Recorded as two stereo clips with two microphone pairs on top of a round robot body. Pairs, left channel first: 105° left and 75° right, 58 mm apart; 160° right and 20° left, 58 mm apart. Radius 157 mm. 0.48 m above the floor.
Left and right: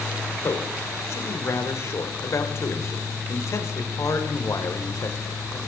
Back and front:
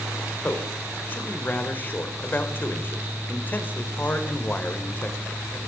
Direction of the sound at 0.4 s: 140° left.